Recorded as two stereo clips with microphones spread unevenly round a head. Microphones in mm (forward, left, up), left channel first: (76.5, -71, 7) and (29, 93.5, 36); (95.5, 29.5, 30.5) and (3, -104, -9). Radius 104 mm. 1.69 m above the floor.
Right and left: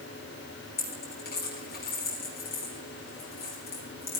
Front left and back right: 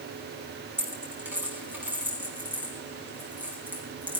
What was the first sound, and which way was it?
A dropped coin, 40° right.